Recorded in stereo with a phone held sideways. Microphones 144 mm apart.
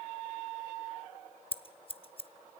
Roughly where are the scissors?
Left.